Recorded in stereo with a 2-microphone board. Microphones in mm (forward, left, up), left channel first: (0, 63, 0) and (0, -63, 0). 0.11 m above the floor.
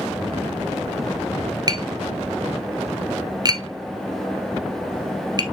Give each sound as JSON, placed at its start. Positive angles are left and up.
{"t": 1.7, "sound": "tapping", "side_deg": -30, "distance_m": 1.0}